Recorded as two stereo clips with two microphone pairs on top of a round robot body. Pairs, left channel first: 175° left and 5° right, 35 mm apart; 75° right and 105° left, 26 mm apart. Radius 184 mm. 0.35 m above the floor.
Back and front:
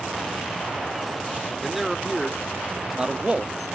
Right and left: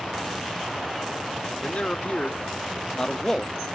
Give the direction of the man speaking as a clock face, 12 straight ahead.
3 o'clock.